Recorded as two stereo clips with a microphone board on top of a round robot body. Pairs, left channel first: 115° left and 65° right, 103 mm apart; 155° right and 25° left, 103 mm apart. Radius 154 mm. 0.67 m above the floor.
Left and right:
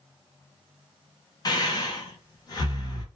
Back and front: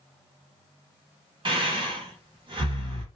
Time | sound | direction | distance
1.4 | breathing | 60° left | 1.2 m